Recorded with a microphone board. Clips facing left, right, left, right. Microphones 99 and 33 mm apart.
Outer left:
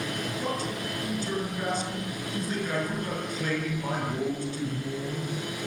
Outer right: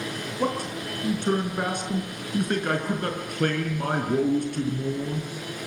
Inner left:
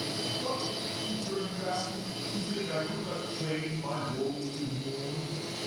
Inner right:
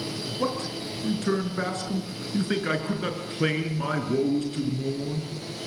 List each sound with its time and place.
0.4 s a man speaking: 60° right (ahead or behind), 6.5 m